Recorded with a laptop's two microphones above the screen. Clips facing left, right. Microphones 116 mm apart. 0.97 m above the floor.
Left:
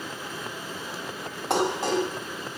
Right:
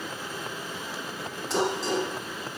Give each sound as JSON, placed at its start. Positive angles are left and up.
{"t": 1.5, "sound": "dishes clattering", "side_deg": 70, "distance_m": 3.5}